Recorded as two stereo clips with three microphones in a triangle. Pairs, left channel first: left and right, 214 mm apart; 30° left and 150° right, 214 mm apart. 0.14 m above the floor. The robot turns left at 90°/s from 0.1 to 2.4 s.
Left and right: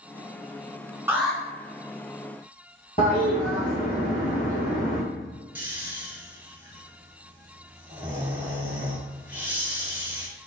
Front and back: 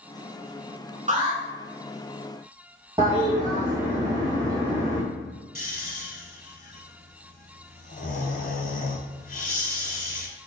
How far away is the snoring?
About 0.7 m.